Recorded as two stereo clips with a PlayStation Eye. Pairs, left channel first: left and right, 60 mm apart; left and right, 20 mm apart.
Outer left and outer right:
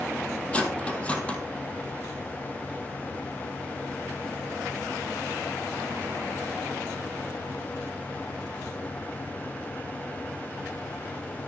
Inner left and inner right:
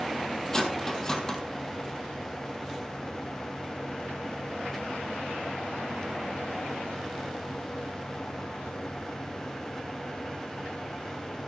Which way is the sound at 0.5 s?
20° left (ahead or behind).